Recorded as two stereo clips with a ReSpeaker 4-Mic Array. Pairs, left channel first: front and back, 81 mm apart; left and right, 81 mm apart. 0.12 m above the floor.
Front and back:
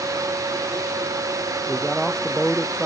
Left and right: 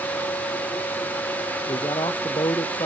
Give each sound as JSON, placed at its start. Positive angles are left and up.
{"t": 1.7, "sound": "a man speaking", "azimuth_deg": 100}